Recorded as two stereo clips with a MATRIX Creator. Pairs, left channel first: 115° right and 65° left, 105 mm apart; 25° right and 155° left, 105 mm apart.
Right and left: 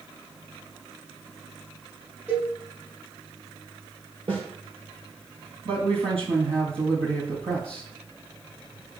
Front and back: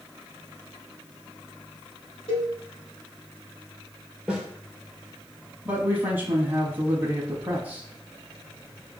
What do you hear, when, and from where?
2.3 s a cowbell: 10° right, 4 m
4.3 s a snare drum: 75° left, 3.5 m
5.7 s a man speaking: 85° left, 3 m